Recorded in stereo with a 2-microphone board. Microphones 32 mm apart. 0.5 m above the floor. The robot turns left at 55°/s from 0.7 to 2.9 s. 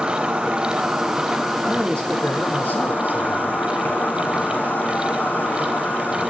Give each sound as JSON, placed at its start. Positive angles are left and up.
{"t": 0.0, "sound": "an insect", "azimuth_deg": -140, "distance_m": 5.0}
{"t": 1.6, "sound": "a man speaking", "azimuth_deg": 155, "distance_m": 5.5}